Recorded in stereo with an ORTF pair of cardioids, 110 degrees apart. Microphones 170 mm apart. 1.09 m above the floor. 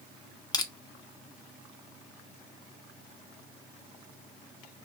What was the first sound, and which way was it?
Crushing, 25° left.